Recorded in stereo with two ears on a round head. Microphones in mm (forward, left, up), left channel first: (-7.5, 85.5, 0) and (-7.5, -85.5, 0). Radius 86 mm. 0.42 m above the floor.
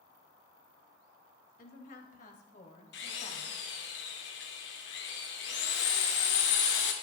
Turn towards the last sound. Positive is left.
turn(degrees=65)  # may be behind; listen again after turning